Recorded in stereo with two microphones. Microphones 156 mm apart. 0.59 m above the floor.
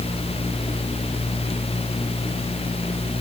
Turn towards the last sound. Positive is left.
No sound to turn to.